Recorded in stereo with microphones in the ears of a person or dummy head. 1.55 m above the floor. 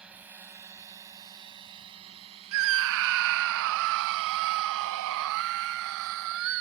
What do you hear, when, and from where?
0.0 s a drone: 5° right (ahead or behind); by 6.6 s 55° right (ahead or behind)
2.5 s a scream: 70° right (ahead or behind)